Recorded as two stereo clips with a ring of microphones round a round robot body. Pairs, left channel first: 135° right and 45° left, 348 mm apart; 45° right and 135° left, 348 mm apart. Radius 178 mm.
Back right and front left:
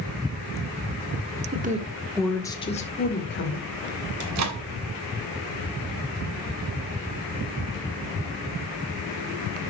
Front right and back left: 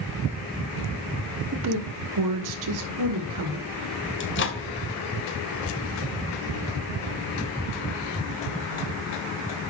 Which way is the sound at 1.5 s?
100° left.